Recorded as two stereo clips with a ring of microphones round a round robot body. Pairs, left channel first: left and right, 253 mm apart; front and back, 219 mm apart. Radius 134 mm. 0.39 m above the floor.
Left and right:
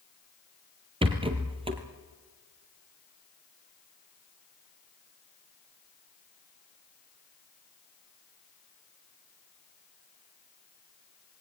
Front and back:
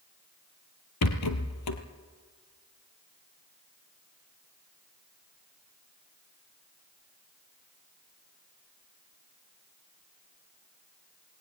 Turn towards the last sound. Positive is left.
turn(degrees=-20)